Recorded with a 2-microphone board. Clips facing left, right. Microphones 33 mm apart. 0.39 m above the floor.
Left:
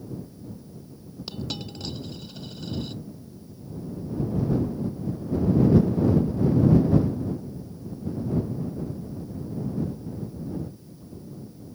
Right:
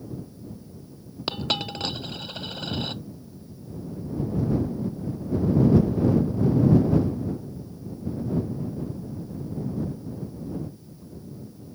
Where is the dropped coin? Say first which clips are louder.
Right 7 dB; 60° right (ahead or behind).